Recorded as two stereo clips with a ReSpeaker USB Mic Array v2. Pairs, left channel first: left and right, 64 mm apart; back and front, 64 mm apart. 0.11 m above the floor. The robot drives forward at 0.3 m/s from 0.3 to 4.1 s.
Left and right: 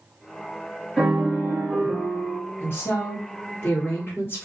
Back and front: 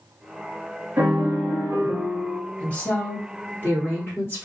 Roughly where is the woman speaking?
Behind left.